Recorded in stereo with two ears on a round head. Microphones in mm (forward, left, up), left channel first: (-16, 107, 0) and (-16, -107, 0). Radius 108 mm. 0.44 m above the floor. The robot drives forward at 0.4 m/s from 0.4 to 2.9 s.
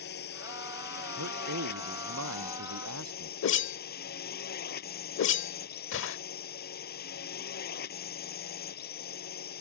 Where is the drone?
45° left (ahead or behind).